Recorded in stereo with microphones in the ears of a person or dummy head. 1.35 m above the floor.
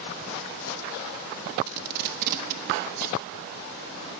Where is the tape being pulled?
50° right (ahead or behind), 0.9 m.